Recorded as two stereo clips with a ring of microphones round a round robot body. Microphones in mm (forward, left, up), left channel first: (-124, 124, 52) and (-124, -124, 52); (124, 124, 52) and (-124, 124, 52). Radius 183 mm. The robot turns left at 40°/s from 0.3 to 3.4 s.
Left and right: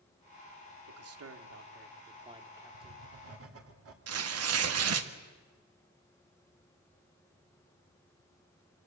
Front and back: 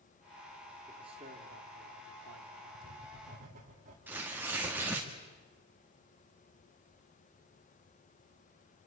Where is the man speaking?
100° right, 1.7 m; by 3.0 s 175° left, 1.7 m.